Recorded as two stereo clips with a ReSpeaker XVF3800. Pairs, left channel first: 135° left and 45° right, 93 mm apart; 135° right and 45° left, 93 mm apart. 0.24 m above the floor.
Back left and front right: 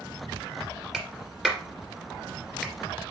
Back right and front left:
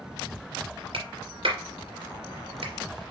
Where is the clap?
40° left, 2.5 m.